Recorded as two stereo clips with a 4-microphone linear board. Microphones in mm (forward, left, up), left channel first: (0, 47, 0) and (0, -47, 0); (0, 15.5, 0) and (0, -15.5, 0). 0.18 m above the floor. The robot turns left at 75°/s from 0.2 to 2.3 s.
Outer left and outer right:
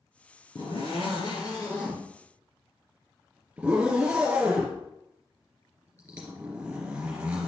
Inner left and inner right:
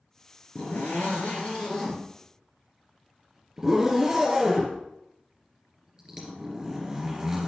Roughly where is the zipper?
Behind left.